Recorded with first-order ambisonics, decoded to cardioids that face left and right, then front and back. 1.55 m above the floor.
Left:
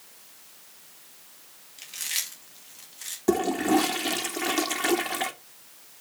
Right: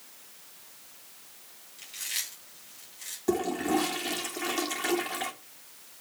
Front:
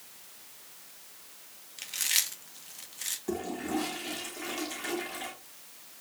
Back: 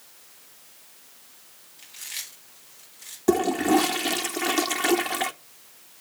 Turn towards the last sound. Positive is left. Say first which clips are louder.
# left 5 dB, back 15 dB
turn(degrees=155)